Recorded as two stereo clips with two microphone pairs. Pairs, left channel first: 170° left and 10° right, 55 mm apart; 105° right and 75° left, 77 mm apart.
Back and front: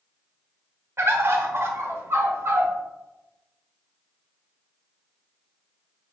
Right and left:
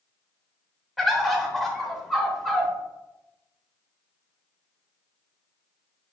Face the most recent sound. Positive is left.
turn(degrees=-20)